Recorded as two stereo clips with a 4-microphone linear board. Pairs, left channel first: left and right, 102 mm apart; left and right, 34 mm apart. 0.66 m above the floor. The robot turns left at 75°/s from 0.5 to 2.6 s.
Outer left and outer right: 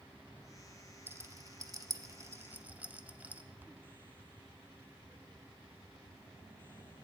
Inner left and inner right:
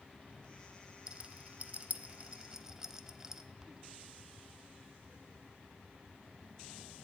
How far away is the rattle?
About 0.5 m.